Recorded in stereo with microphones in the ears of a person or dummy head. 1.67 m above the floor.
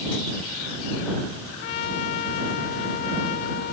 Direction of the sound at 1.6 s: 60° left (ahead or behind).